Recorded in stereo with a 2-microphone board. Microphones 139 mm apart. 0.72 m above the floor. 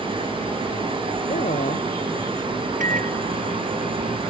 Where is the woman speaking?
65° left (ahead or behind).